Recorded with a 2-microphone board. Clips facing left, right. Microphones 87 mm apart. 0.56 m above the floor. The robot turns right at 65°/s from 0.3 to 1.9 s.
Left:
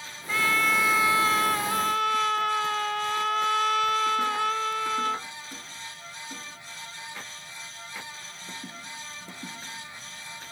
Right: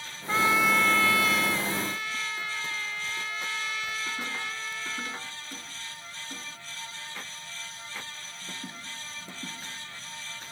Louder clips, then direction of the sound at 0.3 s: Right 1 dB; 30° right.